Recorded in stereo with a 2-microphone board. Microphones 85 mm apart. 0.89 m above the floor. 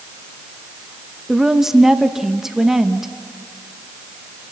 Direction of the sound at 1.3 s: 5° right (ahead or behind).